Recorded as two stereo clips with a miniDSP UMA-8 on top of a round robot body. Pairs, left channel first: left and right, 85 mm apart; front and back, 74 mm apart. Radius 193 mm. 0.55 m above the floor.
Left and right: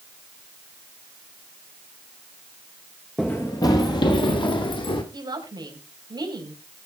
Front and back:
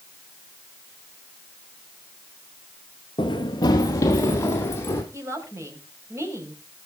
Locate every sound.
3.2 s running footsteps: 5° left, 0.6 m; by 5.0 s 60° left, 1.8 m
5.1 s a woman speaking: 130° right, 4.5 m